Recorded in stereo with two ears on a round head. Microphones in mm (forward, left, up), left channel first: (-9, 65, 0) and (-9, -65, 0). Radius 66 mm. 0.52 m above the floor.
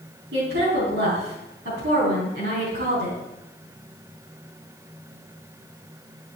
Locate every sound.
0.3 s a woman speaking: 80° right, 4.5 m